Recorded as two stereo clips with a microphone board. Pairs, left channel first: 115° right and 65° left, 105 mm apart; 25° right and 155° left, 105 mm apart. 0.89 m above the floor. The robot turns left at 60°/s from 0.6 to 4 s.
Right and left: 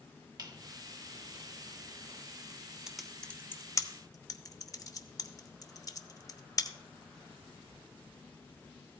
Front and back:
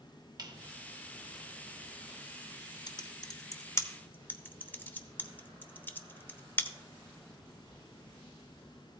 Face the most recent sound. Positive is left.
turn(degrees=-85)